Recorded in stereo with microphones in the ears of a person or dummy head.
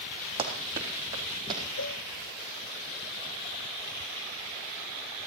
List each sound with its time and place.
0.4 s running footsteps: 25° right (ahead or behind), 3.5 m; by 1.6 s 30° right (ahead or behind), 5 m
1.8 s a cowbell: 65° left (ahead or behind), 1.1 m